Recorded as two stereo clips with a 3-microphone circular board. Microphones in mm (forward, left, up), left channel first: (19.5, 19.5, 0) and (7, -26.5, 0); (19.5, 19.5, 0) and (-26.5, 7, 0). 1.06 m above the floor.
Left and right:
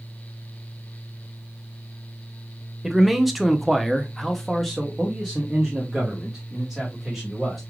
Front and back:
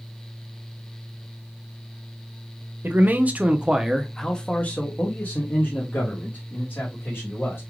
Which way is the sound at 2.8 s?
170° left.